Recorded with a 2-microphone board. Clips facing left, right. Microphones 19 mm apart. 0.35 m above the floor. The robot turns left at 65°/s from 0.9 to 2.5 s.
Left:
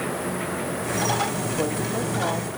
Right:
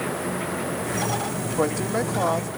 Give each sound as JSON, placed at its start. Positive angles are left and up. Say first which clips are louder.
{"t": 1.6, "sound": "a woman speaking", "louder": "right 5 dB", "azimuth_deg": -70, "distance_m": 1.3}